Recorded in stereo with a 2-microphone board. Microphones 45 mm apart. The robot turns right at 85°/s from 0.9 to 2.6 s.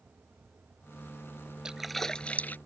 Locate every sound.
1.6 s a splash: 20° right (ahead or behind); by 2.6 s 40° left (ahead or behind)